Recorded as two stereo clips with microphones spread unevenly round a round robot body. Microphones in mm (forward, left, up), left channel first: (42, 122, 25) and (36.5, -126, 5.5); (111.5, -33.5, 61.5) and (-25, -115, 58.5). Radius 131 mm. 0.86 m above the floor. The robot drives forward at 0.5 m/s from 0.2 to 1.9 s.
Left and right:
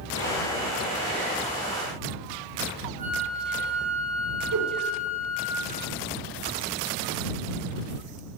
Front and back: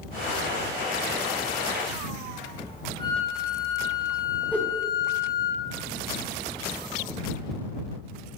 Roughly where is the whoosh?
Ahead right.